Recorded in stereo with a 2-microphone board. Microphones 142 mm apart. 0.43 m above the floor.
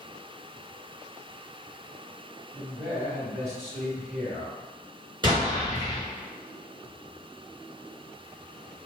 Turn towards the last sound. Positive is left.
turn(degrees=-35)  # may be behind; listen again after turning